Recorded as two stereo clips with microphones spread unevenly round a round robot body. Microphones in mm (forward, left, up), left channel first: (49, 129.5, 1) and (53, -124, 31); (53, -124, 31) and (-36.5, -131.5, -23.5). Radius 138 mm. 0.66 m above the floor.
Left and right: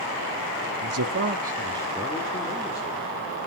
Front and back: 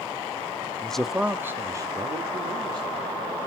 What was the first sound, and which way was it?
A man speaking, 100° right.